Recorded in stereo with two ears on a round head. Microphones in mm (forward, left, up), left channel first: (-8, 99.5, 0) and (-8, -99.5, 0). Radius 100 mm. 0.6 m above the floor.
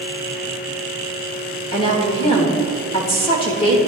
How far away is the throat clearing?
No throat clearing in this recording.